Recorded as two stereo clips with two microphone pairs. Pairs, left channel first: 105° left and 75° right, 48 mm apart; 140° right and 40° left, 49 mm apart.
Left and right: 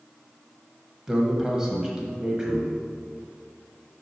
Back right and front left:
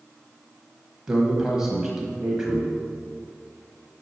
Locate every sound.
1.1 s a man speaking: 20° right, 1.1 m